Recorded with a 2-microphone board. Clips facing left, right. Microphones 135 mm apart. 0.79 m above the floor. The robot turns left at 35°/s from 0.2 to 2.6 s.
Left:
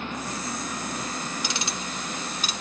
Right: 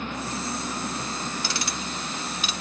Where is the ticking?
15° left (ahead or behind), 0.8 m; by 2.5 s 40° left (ahead or behind), 0.8 m.